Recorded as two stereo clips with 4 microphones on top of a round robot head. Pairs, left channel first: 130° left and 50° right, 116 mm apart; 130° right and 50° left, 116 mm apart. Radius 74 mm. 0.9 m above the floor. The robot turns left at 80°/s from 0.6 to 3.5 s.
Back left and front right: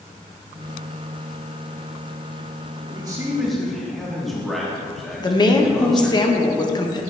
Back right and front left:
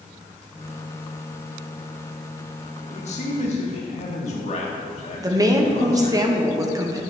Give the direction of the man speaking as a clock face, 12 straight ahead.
3 o'clock.